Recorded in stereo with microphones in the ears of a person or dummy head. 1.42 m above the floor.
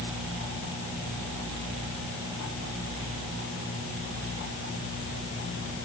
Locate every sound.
Only background noise.